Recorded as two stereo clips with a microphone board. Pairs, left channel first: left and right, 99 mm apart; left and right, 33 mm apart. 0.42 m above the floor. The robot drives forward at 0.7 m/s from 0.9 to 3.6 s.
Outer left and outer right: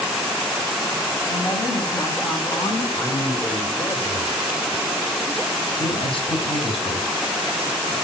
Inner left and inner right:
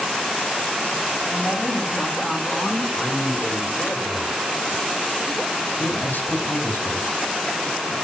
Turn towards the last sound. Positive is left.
turn(degrees=60)  # may be behind; listen again after turning